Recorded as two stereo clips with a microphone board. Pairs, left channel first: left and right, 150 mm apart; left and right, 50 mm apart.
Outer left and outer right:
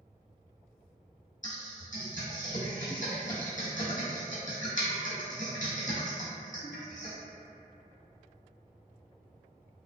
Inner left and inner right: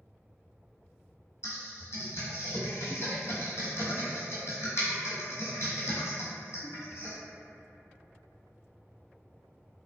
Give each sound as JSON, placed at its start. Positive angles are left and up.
{"t": 1.4, "sound": "typing on a keyboard", "side_deg": 60, "distance_m": 1.2}